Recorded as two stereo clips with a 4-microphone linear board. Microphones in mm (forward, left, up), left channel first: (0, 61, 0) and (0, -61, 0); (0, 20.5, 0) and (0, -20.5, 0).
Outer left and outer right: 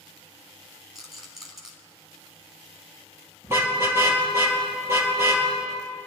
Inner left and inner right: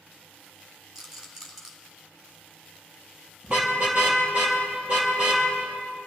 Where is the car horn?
20° right (ahead or behind), 4.5 m.